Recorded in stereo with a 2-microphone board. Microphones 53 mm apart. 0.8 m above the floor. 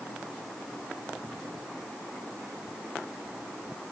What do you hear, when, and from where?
Only background noise.